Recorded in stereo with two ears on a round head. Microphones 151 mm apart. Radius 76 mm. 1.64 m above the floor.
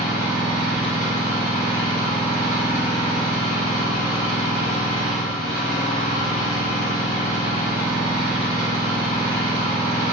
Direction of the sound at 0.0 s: 50° left (ahead or behind).